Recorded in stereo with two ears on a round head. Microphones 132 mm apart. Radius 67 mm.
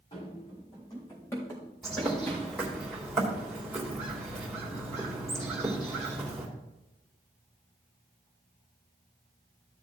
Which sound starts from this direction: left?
Running footsteps, at 0.1 s.